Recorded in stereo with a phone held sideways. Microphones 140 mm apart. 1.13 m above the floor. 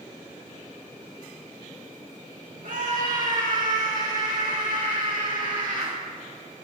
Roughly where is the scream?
Right.